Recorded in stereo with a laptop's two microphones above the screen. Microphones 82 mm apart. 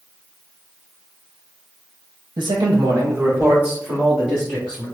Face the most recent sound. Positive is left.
turn(degrees=-5)  # may be behind; listen again after turning